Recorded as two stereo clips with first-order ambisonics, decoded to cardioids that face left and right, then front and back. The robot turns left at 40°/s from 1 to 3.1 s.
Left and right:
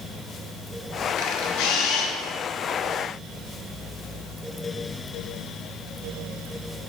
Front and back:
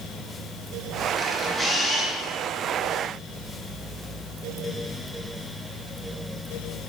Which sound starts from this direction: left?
A camera shutter, at 1.2 s.